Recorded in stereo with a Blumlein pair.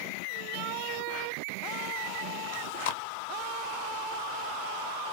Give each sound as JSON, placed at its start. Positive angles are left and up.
{"t": 2.5, "sound": "chewing", "azimuth_deg": 55, "distance_m": 0.5}